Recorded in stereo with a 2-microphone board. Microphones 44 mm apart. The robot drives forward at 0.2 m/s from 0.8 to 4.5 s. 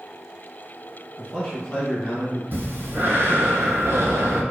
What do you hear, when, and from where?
1.2 s a man speaking: 20° left (ahead or behind), 1.1 m
2.5 s breathing: 50° right (ahead or behind), 0.7 m; by 4.4 s 75° right (ahead or behind), 0.6 m